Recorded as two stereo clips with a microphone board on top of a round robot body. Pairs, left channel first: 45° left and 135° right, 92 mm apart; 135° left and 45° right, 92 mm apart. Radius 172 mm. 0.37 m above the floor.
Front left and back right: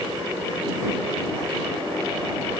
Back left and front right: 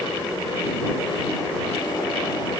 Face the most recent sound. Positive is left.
No sound to turn to.